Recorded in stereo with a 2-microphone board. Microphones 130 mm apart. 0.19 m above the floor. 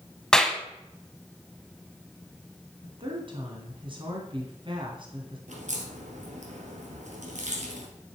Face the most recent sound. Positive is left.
turn(degrees=-75)  # may be behind; listen again after turning